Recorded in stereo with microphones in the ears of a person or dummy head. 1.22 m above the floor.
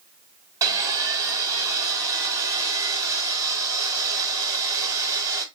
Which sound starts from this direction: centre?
Sawing, at 0.6 s.